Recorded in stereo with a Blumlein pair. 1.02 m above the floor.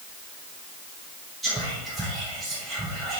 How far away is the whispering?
About 0.7 m.